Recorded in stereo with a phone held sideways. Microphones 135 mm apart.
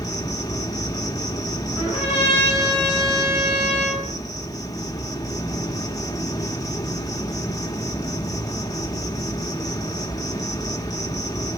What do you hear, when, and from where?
0.0 s an insect: 25° left (ahead or behind), 1.1 m
1.8 s a trumpet: 35° left (ahead or behind), 4.5 m